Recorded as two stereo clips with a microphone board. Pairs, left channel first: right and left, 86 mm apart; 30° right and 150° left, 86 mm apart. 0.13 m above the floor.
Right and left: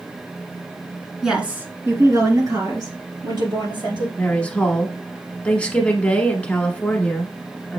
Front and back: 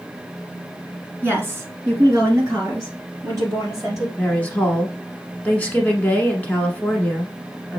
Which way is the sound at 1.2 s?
165° left.